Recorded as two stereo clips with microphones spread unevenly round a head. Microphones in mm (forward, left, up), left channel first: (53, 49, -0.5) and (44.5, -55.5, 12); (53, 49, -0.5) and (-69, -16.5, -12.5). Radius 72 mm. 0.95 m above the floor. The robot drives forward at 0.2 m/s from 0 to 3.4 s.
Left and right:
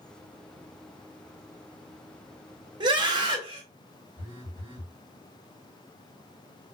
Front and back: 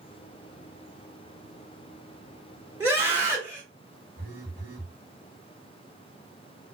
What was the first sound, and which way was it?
A scream, 90° right.